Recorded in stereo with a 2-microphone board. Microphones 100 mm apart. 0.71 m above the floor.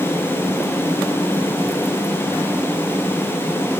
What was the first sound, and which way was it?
Only background noise.